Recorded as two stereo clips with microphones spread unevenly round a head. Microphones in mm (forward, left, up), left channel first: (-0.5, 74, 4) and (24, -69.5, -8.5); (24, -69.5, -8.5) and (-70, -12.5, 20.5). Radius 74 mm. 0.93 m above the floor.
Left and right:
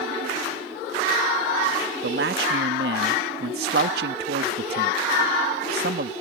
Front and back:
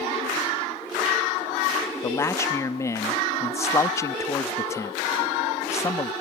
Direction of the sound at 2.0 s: 90° right.